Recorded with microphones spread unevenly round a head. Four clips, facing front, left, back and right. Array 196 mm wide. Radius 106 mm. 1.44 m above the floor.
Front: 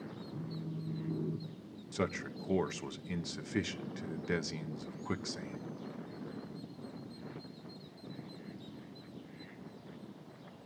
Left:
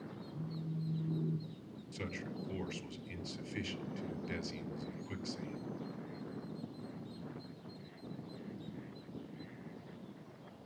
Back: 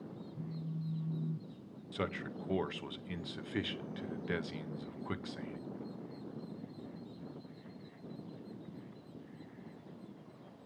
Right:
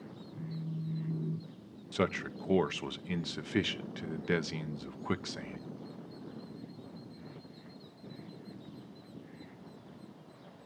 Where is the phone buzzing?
5° left, 3 m.